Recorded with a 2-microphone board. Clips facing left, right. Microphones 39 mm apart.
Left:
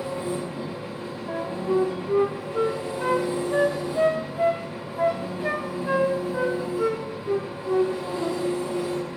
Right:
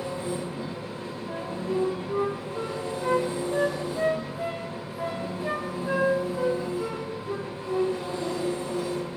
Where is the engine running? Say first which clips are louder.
Left 2 dB; 20° left (ahead or behind), 7 m.